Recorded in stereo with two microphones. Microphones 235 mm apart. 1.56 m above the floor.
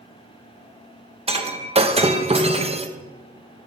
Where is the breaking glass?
25° right (ahead or behind), 1.0 m.